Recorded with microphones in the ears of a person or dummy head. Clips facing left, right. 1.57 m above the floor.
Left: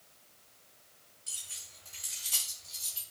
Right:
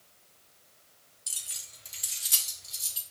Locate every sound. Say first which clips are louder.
1.3 s keys jangling: right 2 dB; 60° right (ahead or behind), 1.5 m; by 3.0 s 15° right (ahead or behind), 1.4 m